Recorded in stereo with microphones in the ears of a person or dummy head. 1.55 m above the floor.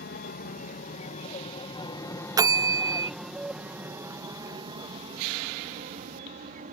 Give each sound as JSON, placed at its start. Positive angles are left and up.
{"t": 0.0, "sound": "an aircraft", "side_deg": 45}
{"t": 2.4, "sound": "a bell", "side_deg": -20}